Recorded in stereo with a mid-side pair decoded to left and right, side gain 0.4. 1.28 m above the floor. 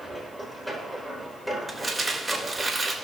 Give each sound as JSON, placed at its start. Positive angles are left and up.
{"t": 0.0, "sound": "a machine running", "azimuth_deg": 5, "distance_m": 4.0}
{"t": 1.7, "sound": "crumpling", "azimuth_deg": -20, "distance_m": 2.5}